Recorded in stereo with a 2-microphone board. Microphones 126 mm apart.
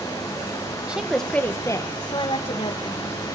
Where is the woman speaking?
10° right (ahead or behind), 1.4 m; by 3.2 s 60° left (ahead or behind), 2.5 m.